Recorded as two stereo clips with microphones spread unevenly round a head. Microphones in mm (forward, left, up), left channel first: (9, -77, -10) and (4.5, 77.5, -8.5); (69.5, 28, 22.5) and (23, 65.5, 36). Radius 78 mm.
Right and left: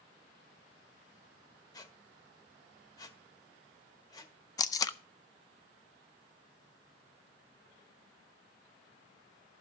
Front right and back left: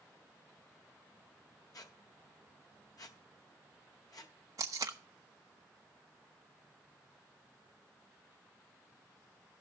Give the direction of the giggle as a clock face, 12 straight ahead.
I don't hear a giggle.